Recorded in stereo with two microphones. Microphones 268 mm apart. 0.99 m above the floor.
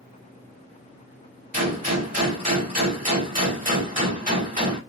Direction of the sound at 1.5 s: 30° right (ahead or behind).